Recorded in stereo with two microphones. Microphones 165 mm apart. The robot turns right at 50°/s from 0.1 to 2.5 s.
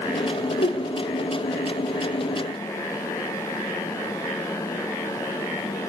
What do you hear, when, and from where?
0.6 s a whoosh: 80° left, 1.9 m; by 0.8 s 85° left, 1.9 m